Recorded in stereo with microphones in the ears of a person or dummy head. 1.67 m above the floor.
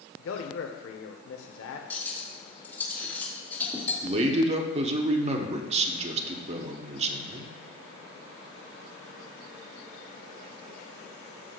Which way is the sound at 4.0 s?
35° right (ahead or behind).